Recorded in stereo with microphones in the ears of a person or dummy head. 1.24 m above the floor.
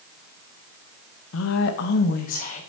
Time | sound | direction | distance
1.3 | a woman speaking | 80° left | 0.9 m